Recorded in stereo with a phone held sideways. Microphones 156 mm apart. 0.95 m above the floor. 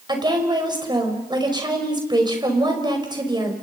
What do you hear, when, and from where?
0.1 s a woman speaking: 30° right (ahead or behind), 5 m